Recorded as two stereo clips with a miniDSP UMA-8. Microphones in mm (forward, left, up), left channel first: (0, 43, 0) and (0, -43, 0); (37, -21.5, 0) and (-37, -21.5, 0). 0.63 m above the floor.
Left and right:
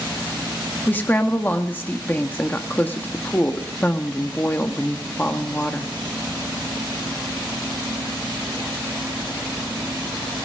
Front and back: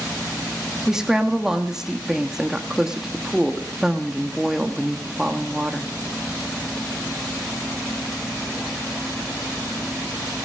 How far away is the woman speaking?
About 1.1 m.